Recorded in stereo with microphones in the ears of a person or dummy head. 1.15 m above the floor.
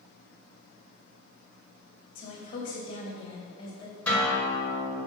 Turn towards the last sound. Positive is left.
turn(degrees=10)  # may be behind; listen again after turning